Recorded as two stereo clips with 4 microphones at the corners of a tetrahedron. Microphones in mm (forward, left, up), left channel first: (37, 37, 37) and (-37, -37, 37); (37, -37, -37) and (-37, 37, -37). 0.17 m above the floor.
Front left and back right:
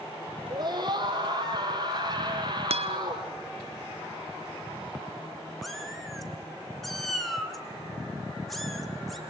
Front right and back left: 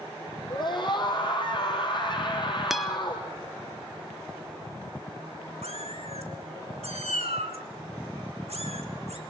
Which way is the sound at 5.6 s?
135° left.